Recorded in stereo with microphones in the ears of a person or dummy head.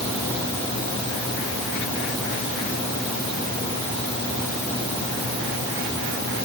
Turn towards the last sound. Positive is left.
No sound to turn to.